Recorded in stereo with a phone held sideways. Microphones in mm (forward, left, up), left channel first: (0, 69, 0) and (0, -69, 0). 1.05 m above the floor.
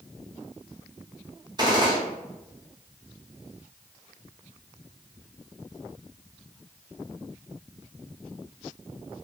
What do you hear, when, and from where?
1.6 s a gunshot: 30° right (ahead or behind), 0.9 m